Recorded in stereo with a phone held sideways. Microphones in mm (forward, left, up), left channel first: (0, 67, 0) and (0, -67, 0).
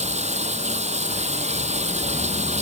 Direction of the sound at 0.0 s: 55° right (ahead or behind).